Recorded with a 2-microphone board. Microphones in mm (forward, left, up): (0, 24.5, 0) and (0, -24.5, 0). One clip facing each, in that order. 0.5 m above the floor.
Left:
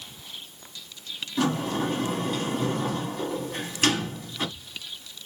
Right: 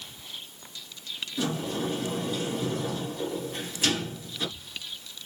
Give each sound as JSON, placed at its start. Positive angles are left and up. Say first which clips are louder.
{"t": 1.4, "sound": "a sliding door", "louder": "left 5 dB", "side_deg": 60, "distance_m": 1.3}